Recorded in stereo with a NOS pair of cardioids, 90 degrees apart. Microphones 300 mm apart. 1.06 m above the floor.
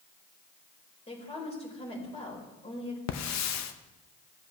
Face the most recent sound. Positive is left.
turn(degrees=65)